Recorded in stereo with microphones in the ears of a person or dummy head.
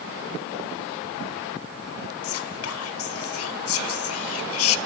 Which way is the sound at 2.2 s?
75° left (ahead or behind).